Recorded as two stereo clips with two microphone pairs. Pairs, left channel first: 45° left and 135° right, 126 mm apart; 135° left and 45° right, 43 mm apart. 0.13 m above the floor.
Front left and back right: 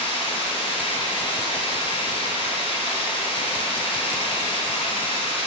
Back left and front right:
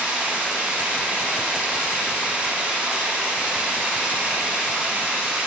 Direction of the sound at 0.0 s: 20° left.